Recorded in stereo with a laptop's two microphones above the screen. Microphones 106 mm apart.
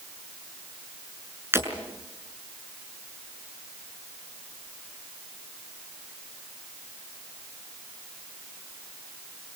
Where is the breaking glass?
25° right (ahead or behind), 6 m.